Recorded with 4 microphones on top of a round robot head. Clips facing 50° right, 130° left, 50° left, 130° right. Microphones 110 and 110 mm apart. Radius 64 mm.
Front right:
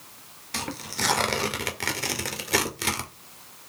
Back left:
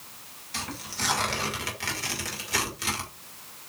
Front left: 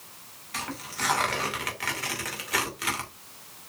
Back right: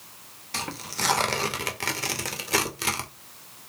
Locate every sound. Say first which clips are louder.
0.5 s tearing paper: front right 3 dB, back right 1 dB; 75° right, 1.7 m